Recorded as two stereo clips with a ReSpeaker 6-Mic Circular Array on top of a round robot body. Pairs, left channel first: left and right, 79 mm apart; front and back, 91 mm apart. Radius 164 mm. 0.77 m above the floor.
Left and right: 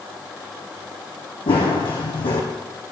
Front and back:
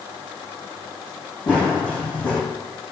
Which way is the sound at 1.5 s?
75° left.